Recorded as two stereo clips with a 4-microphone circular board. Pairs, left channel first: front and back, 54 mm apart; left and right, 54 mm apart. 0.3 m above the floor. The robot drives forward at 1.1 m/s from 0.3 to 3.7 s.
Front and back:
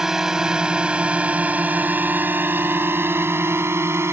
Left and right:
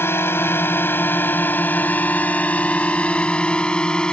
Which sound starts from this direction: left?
A drone, at 0.0 s.